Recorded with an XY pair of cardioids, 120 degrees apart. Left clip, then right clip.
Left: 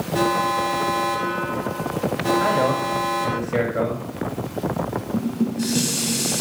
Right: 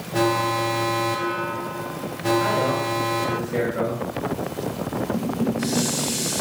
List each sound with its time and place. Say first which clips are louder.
0.1 s an alarm: left 1 dB; 10° right, 0.9 m
2.4 s a man speaking: left 2 dB; 15° left, 5 m
5.1 s dishes clattering: even; 20° left, 8 m